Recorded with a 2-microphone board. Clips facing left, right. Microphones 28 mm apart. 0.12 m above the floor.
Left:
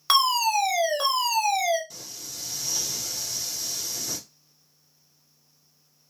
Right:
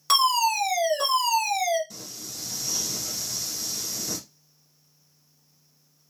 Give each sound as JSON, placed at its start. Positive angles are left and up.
{"t": 0.1, "sound": "a fire alarm", "side_deg": 25, "distance_m": 2.0}
{"t": 1.9, "sound": "singing", "side_deg": 0, "distance_m": 1.7}